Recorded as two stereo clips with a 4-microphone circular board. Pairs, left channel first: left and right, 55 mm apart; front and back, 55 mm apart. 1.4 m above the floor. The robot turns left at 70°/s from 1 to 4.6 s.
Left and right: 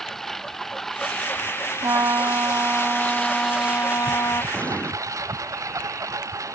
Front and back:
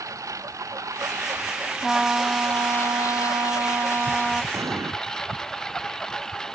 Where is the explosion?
160° left; by 4.9 s 155° left.